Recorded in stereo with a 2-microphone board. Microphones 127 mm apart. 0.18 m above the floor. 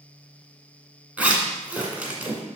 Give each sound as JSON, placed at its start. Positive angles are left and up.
{"t": 1.2, "sound": "a zipper", "side_deg": -10, "distance_m": 1.8}